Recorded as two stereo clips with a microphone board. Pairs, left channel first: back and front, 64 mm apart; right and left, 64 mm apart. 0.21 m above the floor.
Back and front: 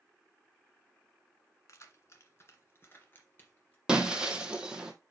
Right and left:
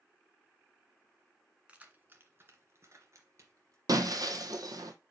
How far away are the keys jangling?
About 1.4 m.